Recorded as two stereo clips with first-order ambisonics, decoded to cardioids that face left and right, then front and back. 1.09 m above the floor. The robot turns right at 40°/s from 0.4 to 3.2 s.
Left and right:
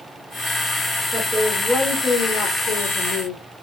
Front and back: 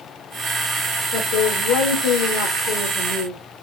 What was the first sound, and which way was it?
A woman speaking, 25° right.